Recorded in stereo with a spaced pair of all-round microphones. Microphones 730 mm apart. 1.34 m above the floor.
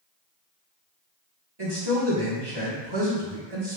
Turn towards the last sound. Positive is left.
turn(degrees=-30)  # may be behind; listen again after turning